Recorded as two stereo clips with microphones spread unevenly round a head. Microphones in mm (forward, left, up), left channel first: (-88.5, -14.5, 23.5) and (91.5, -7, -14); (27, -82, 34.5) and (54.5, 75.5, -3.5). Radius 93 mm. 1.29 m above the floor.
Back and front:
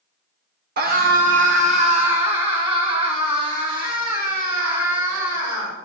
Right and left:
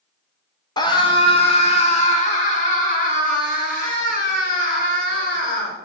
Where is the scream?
35° right, 1.5 m; by 5.8 s 70° right, 6 m.